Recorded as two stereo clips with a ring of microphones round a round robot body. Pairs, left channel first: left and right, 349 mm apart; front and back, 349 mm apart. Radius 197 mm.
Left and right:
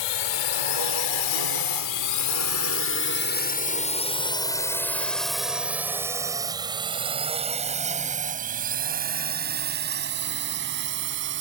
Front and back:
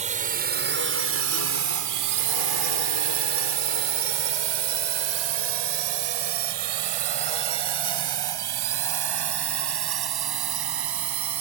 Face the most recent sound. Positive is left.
turn(degrees=-155)